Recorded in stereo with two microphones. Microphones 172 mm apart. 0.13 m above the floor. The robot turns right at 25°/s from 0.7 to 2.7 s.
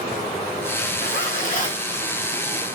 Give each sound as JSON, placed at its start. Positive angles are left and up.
{"t": 1.0, "sound": "a zipper", "side_deg": 60, "distance_m": 5.5}